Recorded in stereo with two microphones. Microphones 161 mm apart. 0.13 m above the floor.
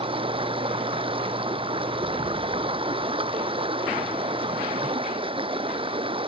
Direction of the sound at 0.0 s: 35° right (ahead or behind).